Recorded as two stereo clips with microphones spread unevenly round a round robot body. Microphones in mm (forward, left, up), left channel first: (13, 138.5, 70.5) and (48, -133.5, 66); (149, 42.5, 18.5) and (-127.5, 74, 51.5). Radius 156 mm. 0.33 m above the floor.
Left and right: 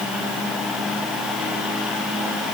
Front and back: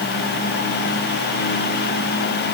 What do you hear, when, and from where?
Only background noise.